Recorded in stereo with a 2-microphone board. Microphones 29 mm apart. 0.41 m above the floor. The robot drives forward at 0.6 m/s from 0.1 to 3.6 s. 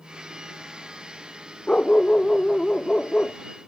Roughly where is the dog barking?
Left.